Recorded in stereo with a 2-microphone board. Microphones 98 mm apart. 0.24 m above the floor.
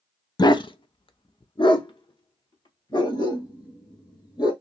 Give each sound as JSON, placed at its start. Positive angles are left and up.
{"t": 0.4, "sound": "a dog barking", "side_deg": 50, "distance_m": 0.5}